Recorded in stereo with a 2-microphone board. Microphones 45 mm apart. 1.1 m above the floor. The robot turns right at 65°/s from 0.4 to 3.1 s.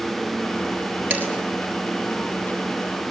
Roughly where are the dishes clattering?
Right.